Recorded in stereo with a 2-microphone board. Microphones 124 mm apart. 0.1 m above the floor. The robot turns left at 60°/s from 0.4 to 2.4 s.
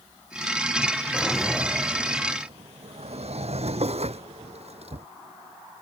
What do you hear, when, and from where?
1.1 s a drawer: 15° left; by 5.1 s 60° right